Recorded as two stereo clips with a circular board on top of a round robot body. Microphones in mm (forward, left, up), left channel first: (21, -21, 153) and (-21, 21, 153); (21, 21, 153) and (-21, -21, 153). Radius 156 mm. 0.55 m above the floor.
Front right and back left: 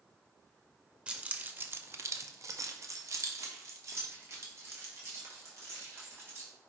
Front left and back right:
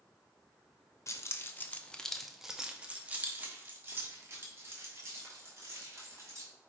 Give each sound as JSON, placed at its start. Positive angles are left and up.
{"t": 1.1, "sound": "keys jangling", "azimuth_deg": 65, "distance_m": 0.8}